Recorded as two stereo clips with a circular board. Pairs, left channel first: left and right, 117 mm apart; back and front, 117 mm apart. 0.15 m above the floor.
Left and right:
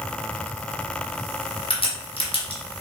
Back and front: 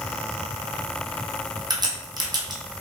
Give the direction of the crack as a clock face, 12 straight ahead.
10 o'clock.